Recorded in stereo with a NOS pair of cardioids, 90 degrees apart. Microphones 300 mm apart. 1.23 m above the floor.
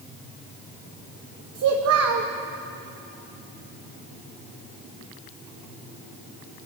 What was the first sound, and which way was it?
A child speaking, 55° right.